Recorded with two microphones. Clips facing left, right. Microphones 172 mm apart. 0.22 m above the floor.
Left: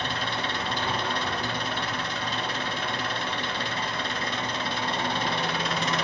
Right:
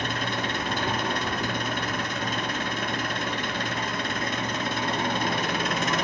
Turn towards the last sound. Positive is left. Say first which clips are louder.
# right 2 dB
turn(degrees=-50)  # may be behind; listen again after turning